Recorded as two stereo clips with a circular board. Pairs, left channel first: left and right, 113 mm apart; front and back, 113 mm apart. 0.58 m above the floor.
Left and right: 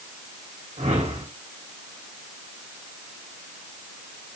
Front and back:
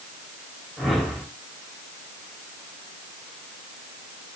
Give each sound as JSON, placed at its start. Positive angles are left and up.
{"t": 0.8, "sound": "a whoosh", "azimuth_deg": -90, "distance_m": 1.4}